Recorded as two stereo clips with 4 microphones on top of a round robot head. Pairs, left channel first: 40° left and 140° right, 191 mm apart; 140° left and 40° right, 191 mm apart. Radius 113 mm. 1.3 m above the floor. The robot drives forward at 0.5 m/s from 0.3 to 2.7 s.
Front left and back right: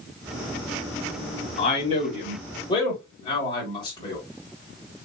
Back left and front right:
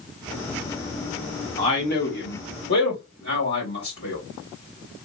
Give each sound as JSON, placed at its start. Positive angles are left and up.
{"t": 1.6, "sound": "a man speaking", "azimuth_deg": 90, "distance_m": 2.5}